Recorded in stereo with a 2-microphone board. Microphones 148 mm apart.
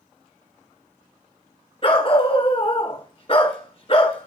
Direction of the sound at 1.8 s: 40° left (ahead or behind).